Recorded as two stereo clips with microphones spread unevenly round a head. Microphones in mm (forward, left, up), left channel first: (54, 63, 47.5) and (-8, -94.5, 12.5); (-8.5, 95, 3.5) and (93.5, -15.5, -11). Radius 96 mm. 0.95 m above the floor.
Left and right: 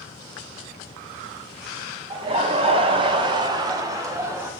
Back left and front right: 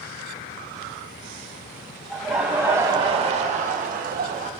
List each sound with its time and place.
2.1 s laughter: 140° right, 1.0 m; by 4.5 s 45° right, 1.5 m